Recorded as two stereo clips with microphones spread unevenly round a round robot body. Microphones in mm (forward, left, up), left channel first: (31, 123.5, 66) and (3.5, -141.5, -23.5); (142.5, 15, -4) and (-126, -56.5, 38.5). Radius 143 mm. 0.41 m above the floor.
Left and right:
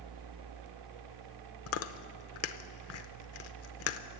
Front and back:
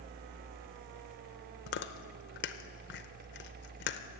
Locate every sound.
1.7 s chewing: 45° left, 0.7 m